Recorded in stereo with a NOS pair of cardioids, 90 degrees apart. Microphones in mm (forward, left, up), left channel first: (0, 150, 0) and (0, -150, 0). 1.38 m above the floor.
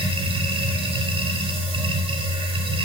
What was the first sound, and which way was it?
A machine running, 20° right.